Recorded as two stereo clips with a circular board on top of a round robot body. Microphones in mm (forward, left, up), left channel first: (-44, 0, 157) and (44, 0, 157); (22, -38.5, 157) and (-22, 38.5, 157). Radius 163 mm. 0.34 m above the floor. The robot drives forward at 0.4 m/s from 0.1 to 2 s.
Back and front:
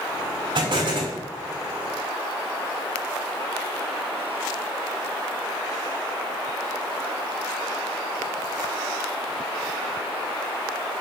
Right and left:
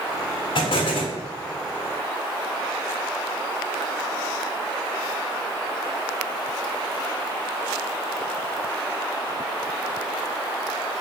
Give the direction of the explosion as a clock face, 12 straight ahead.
1 o'clock.